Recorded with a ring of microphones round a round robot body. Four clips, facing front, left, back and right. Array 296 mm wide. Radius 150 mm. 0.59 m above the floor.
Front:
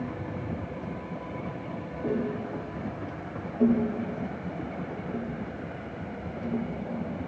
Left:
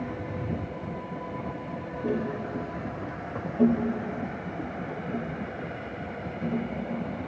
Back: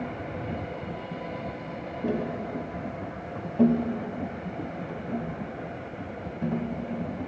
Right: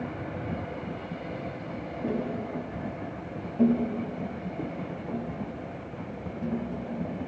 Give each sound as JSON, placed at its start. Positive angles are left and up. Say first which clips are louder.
{"t": 2.0, "sound": "tapping", "louder": "left 1 dB, even", "azimuth_deg": 175, "distance_m": 3.0}